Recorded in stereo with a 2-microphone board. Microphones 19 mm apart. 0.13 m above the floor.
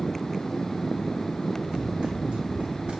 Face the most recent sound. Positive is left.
turn(degrees=-70)  # may be behind; listen again after turning